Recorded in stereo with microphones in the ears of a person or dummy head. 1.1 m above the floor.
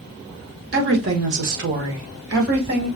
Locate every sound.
0.7 s a woman speaking: 45° right (ahead or behind), 1.3 m; by 2.9 s 75° right (ahead or behind), 2.5 m